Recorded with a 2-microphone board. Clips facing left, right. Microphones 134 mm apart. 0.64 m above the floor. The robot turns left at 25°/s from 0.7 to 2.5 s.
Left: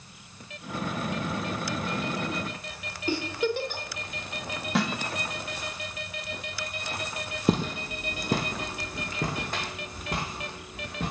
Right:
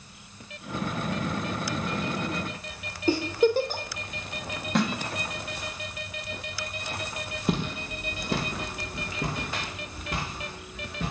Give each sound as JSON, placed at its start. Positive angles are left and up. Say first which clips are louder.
{"t": 3.1, "sound": "a giggle", "louder": "right 6 dB", "side_deg": -35, "distance_m": 0.8}
{"t": 4.8, "sound": "a snare drum", "louder": "right 2 dB", "side_deg": 0, "distance_m": 1.0}
{"t": 7.5, "sound": "footsteps", "louder": "left 3 dB", "side_deg": 35, "distance_m": 0.9}